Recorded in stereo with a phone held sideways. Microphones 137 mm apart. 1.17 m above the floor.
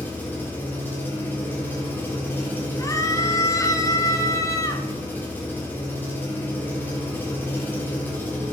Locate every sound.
0.0 s an engine running: 15° left (ahead or behind), 2.5 m
2.8 s a scream: 25° left (ahead or behind), 0.8 m